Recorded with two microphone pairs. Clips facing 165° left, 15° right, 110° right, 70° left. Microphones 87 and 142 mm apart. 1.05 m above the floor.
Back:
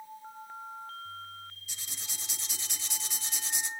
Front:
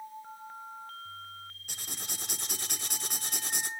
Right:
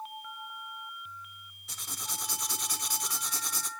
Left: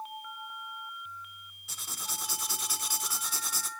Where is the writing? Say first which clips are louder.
Front 4 dB, even; 15° right, 1.0 m.